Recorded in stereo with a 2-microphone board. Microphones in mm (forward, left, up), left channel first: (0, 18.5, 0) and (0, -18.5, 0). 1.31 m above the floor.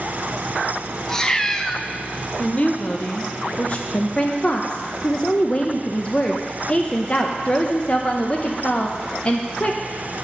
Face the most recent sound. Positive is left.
turn(degrees=30)  # may be behind; listen again after turning